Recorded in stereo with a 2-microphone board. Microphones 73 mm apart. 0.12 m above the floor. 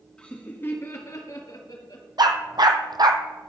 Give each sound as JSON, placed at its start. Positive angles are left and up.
{"t": 0.2, "sound": "laughter", "side_deg": 10, "distance_m": 1.7}
{"t": 2.2, "sound": "a dog barking", "side_deg": -65, "distance_m": 1.1}